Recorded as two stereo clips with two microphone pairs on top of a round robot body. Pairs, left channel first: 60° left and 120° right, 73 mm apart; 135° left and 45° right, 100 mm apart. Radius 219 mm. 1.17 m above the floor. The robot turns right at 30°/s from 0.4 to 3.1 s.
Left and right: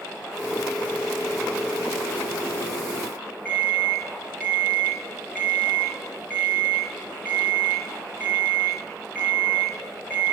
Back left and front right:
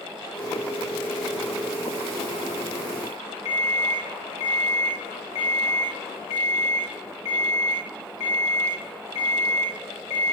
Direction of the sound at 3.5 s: 135° left.